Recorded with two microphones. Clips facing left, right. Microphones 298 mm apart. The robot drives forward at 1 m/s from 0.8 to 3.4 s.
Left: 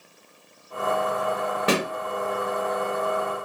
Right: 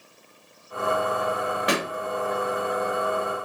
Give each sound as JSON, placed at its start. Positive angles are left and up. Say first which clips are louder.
{"t": 1.7, "sound": "a pop", "louder": "left 4 dB", "side_deg": 35, "distance_m": 0.7}